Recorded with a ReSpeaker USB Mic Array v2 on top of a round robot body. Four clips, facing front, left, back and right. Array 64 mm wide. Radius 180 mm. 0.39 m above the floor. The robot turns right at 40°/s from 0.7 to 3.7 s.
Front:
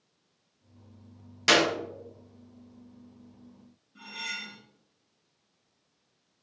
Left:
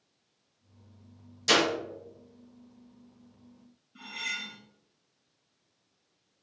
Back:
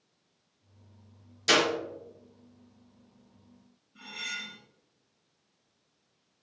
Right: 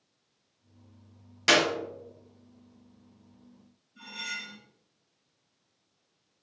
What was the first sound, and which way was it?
A clap, 50° right.